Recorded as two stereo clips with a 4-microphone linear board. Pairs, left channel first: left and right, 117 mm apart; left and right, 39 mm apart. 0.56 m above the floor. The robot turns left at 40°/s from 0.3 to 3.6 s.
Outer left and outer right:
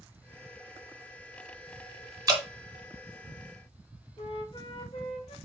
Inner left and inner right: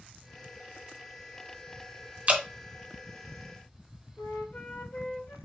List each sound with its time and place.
2.3 s dripping: 30° right (ahead or behind), 0.8 m; by 2.4 s 35° right (ahead or behind), 0.8 m
4.2 s a flute: 50° left (ahead or behind), 1.1 m